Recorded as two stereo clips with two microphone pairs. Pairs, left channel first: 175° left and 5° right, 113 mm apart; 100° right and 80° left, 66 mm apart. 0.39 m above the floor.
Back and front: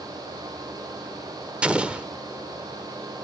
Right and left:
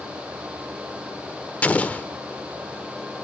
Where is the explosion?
80° right, 0.5 m.